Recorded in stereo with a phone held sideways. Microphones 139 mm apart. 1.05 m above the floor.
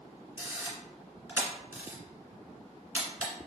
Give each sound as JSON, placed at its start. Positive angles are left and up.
{"t": 0.4, "sound": "a camera shutter", "side_deg": -15, "distance_m": 1.6}